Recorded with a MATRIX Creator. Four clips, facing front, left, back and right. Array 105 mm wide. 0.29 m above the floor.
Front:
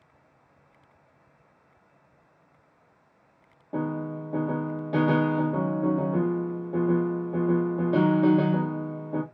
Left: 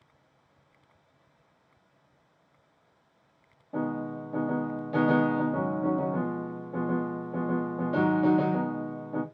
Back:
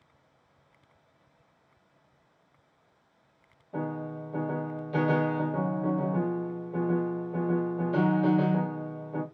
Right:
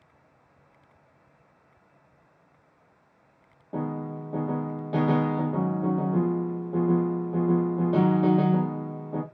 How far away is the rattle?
I don't hear a rattle.